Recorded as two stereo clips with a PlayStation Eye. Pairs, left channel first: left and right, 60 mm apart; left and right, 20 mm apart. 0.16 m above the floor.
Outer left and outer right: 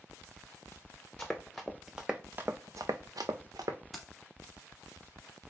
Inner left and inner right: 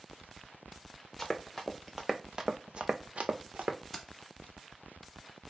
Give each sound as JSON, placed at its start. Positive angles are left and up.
{"t": 1.2, "sound": "running footsteps", "side_deg": 10, "distance_m": 0.9}
{"t": 3.9, "sound": "keys jangling", "side_deg": 0, "distance_m": 1.0}